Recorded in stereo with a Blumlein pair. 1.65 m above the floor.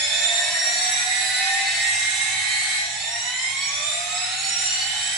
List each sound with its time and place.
0.0 s a machine running: 20° right, 0.8 m